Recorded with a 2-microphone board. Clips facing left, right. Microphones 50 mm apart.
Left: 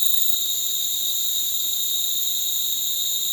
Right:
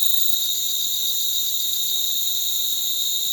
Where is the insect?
20° left (ahead or behind).